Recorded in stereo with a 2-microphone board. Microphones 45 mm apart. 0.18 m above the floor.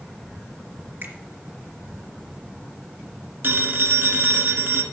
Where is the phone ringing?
60° right (ahead or behind), 1.6 m.